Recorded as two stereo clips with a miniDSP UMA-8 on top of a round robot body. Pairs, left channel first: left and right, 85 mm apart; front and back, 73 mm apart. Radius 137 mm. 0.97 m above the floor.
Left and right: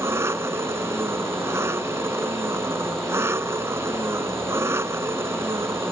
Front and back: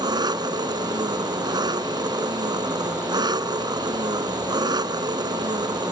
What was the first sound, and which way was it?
An engine running, 155° right.